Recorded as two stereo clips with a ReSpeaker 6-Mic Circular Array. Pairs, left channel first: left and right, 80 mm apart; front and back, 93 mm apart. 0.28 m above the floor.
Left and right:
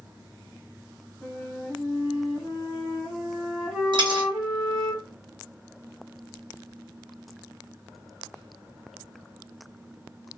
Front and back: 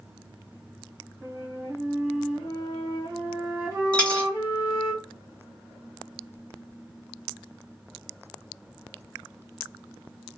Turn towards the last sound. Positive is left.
turn(degrees=-80)